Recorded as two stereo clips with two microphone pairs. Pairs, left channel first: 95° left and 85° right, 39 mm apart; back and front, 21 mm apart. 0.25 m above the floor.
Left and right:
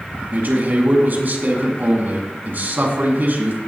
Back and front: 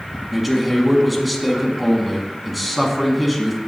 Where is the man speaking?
90° right, 2.5 m.